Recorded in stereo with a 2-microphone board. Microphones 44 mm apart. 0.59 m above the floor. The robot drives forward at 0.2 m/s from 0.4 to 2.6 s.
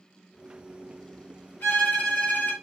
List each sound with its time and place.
1.6 s a violin: 55° left (ahead or behind), 1.6 m